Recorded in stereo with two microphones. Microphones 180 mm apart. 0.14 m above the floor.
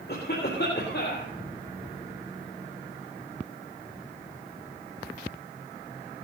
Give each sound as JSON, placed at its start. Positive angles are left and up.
{"t": 0.1, "sound": "a cough", "side_deg": 65, "distance_m": 3.5}